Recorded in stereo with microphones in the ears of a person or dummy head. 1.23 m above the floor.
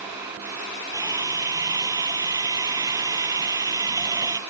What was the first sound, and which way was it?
A drill, 20° right (ahead or behind).